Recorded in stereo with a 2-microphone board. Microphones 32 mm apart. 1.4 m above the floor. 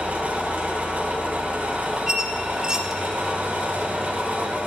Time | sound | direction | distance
0.0 | an engine running | 55° right (ahead or behind) | 1.6 m
2.1 | a squeak | 25° right (ahead or behind) | 0.7 m